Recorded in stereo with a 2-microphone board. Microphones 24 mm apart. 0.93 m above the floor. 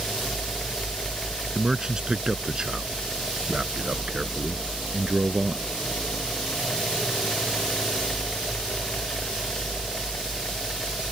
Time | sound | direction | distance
1.6 | a man speaking | 30° right (ahead or behind) | ?